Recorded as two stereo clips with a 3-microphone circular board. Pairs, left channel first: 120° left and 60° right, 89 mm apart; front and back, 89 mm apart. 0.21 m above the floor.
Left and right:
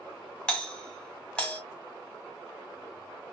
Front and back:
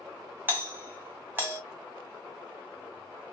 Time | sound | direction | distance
0.5 | a doorbell | straight behind | 1.7 m